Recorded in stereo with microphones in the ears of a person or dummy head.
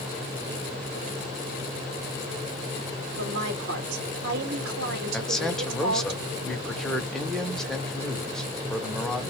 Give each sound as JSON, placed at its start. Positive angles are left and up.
{"t": 3.2, "sound": "a woman speaking", "side_deg": -60, "distance_m": 1.8}
{"t": 5.1, "sound": "a man speaking", "side_deg": 5, "distance_m": 1.2}